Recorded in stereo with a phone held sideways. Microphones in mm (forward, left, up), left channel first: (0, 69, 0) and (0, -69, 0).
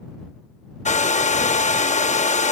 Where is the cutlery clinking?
I don't hear cutlery clinking.